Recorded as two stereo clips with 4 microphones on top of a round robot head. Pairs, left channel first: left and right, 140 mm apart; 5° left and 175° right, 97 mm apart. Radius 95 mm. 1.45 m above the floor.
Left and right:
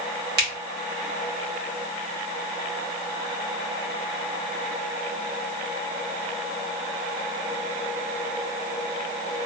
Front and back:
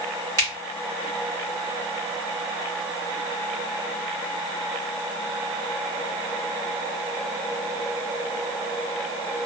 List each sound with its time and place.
0.4 s a finger snap: 105° right, 1.2 m